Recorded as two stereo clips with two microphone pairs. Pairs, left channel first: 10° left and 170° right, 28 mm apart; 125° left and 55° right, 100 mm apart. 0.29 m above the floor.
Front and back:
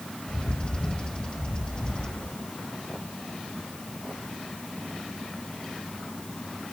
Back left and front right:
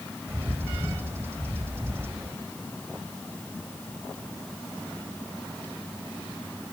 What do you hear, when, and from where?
0.3 s a bird: 10° right, 1.2 m